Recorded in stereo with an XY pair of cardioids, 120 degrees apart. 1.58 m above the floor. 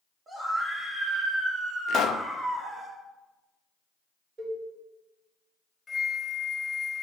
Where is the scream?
35° right, 2.0 m; by 2.9 s 45° right, 5 m.